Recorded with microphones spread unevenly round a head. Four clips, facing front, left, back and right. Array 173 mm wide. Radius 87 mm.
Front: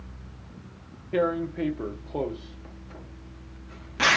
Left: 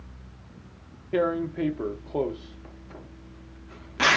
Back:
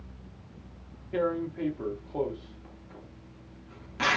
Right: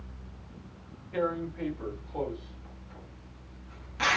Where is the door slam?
I don't hear a door slam.